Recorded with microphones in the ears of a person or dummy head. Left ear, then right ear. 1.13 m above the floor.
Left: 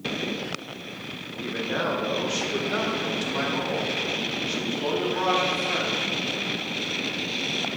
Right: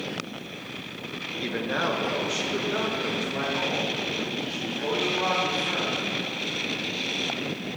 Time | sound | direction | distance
1.4 | a man speaking | 25° right (ahead or behind) | 0.9 m